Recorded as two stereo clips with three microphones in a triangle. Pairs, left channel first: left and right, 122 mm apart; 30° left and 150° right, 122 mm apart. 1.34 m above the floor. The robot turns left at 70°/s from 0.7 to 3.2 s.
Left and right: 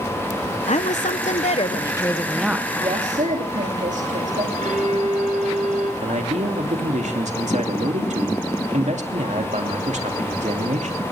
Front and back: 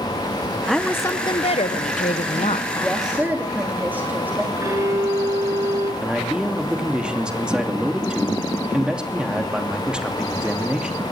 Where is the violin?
85° right, 7.5 m.